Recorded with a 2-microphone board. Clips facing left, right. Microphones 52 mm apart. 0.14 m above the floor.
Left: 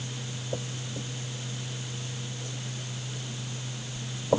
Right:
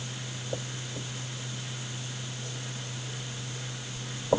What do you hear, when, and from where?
Only background noise.